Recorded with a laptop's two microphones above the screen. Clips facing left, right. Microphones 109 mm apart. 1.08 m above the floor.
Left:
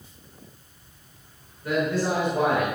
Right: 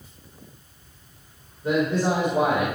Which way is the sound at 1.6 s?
25° right (ahead or behind).